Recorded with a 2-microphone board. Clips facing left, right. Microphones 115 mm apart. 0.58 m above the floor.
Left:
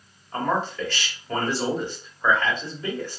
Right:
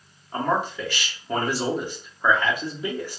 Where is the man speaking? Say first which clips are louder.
Right 1 dB; 10° right (ahead or behind), 1.1 m.